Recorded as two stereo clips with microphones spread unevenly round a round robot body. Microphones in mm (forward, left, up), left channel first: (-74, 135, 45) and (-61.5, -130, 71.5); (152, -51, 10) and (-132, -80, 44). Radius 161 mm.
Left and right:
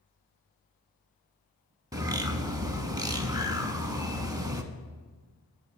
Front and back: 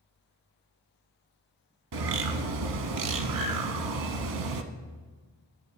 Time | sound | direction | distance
1.9 | a bird | 165° right | 0.8 m